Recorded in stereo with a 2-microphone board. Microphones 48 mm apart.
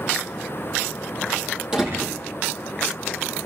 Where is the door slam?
20° right (ahead or behind), 8.5 m.